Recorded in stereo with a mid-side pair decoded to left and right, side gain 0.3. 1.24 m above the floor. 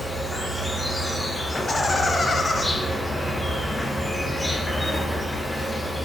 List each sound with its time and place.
0.0 s an insect: 10° left, 0.7 m
1.5 s laughter: 40° left, 0.7 m